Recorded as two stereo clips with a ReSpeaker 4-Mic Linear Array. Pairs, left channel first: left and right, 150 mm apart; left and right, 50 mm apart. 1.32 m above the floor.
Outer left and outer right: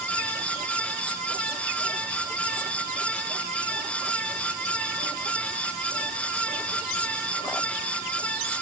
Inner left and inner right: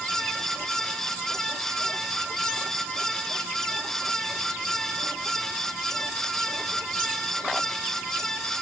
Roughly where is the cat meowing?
I don't hear a cat meowing.